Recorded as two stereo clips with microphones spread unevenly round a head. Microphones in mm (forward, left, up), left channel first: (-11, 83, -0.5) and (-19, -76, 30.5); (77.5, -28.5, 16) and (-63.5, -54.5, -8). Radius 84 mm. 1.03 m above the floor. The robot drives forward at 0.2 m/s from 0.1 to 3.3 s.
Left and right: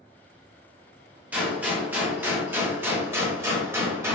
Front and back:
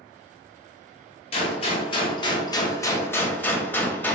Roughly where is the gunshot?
Ahead.